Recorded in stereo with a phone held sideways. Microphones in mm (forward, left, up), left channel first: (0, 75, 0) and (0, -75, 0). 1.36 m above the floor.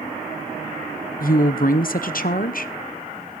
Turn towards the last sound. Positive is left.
turn(degrees=65)  # may be behind; listen again after turning